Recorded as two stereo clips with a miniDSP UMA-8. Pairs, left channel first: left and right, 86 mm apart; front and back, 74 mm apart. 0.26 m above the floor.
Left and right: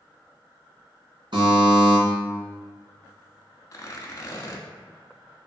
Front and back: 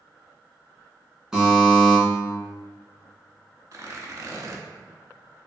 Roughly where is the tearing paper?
Behind left.